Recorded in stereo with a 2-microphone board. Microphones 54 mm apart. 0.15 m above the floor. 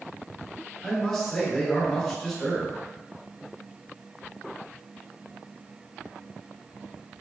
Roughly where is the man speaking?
Centre.